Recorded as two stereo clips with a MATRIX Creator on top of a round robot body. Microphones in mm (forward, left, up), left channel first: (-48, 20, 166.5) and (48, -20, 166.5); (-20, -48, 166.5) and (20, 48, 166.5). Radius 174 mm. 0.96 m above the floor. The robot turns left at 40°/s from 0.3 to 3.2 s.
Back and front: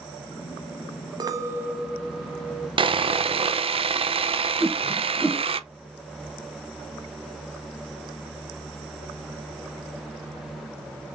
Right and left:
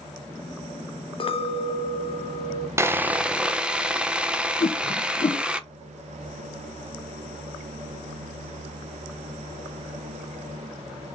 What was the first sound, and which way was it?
A clink, 75° right.